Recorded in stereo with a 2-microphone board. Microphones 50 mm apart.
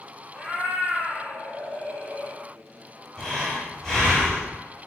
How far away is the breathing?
About 1.4 m.